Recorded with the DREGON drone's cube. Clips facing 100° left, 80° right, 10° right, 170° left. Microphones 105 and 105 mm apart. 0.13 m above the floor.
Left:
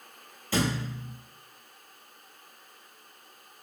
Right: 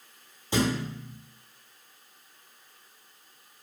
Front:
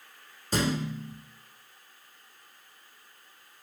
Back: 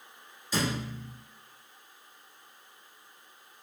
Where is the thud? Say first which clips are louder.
Right 2 dB, front 3 dB; 15° right, 1.1 m.